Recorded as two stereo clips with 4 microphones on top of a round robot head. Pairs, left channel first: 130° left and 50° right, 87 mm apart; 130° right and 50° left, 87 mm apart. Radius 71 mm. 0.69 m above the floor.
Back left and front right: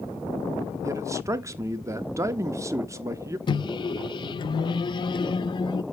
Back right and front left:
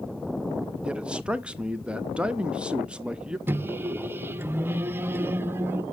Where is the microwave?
115° left, 0.5 m.